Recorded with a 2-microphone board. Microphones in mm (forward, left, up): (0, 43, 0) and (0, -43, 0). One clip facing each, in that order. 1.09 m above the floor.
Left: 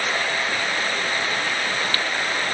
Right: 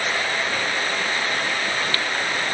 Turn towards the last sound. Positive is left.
No sound to turn to.